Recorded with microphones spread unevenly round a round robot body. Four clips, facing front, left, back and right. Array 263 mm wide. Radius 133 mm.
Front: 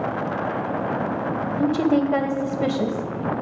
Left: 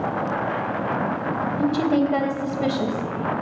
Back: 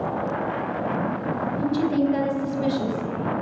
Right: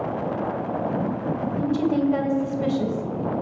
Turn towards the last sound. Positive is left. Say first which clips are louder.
# left 2 dB, front 3 dB
turn(degrees=25)